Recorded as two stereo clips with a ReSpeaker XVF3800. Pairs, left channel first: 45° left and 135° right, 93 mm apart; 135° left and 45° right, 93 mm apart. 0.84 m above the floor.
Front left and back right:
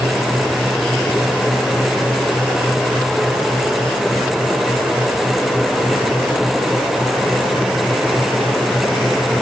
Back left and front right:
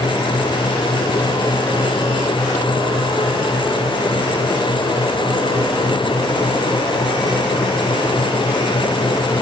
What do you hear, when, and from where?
Only background noise.